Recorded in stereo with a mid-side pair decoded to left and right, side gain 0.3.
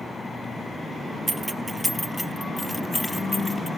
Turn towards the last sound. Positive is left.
turn(degrees=25)